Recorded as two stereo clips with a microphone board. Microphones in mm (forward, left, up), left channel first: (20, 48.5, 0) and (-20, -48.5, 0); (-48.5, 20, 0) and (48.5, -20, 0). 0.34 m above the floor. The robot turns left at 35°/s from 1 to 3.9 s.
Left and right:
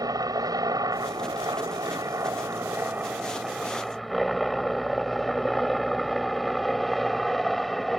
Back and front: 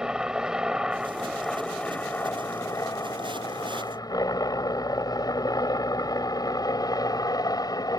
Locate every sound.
0.0 s a helicopter: 100° right; by 8.0 s 160° left